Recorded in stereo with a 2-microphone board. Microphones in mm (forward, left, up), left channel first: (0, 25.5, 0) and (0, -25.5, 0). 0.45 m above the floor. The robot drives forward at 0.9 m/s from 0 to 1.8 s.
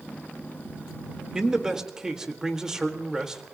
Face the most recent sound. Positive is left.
turn(degrees=-10)  # may be behind; listen again after turning